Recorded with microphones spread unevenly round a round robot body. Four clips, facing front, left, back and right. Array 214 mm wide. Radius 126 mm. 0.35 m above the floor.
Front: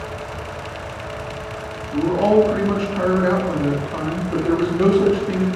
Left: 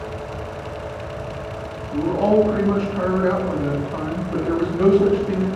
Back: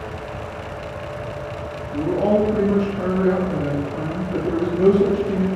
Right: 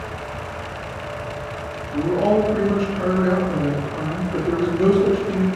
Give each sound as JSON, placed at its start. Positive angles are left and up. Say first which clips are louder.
{"t": 1.9, "sound": "a man speaking", "louder": "left 1 dB, front 3 dB", "azimuth_deg": 20, "distance_m": 2.5}